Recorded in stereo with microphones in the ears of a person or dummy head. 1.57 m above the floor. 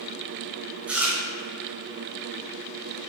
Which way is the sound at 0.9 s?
5° right (ahead or behind).